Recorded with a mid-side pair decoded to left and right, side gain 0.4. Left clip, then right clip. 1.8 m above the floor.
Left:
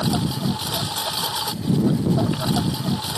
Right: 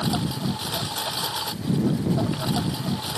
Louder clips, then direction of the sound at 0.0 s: Left 3 dB; 30° left.